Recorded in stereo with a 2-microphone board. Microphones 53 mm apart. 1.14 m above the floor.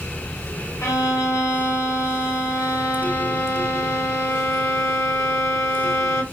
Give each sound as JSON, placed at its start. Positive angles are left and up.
{"t": 0.8, "sound": "a violin", "side_deg": 75, "distance_m": 0.7}